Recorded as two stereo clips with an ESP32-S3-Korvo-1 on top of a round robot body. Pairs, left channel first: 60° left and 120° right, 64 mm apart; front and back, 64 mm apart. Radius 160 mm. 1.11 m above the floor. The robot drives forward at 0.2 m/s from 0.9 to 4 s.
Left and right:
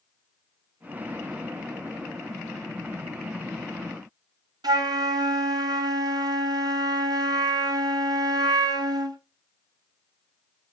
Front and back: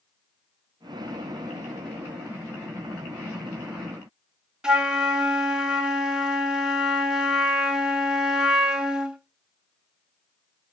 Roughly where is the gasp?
I don't hear a gasp.